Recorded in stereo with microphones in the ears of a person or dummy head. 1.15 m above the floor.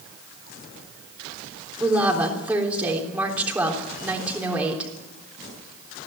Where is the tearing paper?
I don't hear tearing paper.